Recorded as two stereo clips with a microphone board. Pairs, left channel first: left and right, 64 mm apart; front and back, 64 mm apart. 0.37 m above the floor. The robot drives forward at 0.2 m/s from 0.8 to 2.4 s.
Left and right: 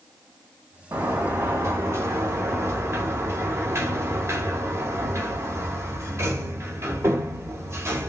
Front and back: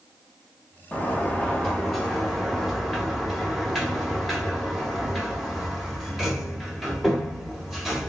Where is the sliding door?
70° right, 1.0 m; by 8.1 s 90° right, 1.0 m.